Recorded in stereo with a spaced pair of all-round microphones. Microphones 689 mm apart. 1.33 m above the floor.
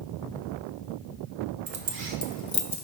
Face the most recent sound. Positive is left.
turn(degrees=60)  # may be behind; listen again after turning